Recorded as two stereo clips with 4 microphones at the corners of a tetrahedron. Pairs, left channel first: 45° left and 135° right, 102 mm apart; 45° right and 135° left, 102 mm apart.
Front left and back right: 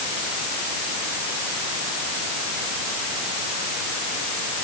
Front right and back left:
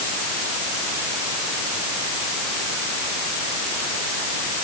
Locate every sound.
Only background noise.